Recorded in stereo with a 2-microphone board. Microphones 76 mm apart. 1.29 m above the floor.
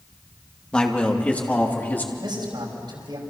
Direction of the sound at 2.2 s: 75° right (ahead or behind).